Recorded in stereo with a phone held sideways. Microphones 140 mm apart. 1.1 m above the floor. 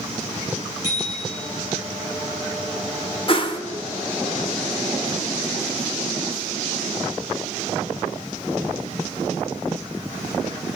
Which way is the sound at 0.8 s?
20° right (ahead or behind).